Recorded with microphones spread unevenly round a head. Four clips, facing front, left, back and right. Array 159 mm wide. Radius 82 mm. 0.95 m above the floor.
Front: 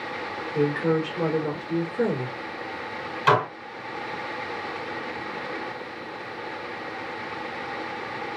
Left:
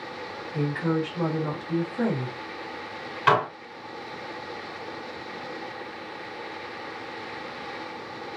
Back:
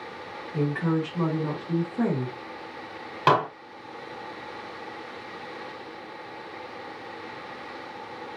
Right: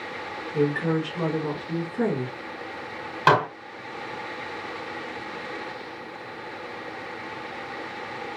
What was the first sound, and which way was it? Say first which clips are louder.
A woman speaking: right 3 dB, front 3 dB; 160° right.